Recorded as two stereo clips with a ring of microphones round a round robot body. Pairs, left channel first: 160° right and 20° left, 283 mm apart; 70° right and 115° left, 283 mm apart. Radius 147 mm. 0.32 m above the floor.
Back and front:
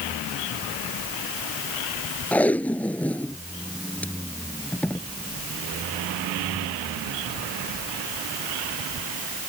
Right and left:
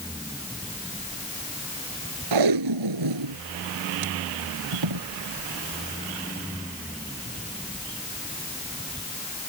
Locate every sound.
2.3 s tape being pulled: 115° left